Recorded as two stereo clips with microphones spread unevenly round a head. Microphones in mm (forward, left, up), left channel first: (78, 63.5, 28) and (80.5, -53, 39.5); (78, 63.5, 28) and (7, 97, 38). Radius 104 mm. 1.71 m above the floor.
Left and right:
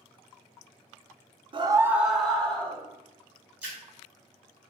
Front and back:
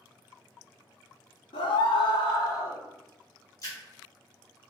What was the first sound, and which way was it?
A scream, 55° right.